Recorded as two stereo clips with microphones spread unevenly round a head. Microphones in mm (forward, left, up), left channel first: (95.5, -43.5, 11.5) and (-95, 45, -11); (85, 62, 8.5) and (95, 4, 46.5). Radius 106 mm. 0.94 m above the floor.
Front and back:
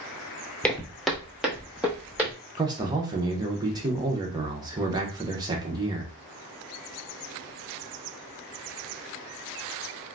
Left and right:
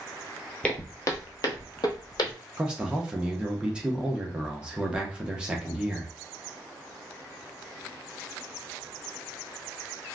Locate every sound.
0.6 s footsteps: 80° right, 0.9 m; by 2.3 s 70° left, 1.9 m
2.6 s a man speaking: 140° left, 0.7 m